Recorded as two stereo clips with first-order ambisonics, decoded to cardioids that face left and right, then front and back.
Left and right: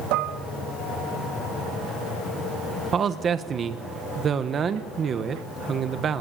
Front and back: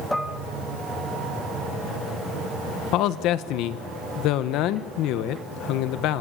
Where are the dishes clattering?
85° right, 1.9 m.